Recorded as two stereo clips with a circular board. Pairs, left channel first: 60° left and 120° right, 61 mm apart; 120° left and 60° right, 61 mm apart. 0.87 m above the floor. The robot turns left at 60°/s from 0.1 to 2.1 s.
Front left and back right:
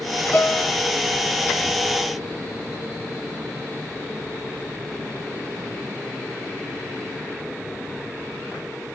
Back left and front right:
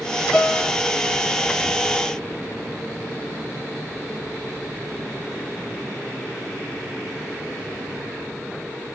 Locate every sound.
0.3 s a piano: 45° left, 0.6 m; by 0.7 s 20° left, 0.6 m